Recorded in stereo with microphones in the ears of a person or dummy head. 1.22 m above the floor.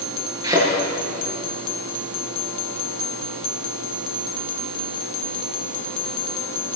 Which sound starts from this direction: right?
A thud, at 0.4 s.